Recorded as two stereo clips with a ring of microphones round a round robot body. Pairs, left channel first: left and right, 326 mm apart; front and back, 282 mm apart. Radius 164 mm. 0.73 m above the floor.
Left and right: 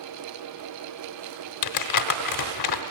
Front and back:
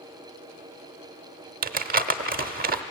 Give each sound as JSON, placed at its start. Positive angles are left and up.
{"t": 1.6, "sound": "crumpling", "azimuth_deg": 120, "distance_m": 0.8}